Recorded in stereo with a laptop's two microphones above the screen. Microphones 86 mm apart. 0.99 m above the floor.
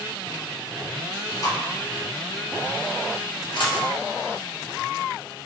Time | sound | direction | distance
1.1 | chewing | 40° left (ahead or behind) | 1.9 m
3.5 | a dropped coin | 60° left (ahead or behind) | 0.8 m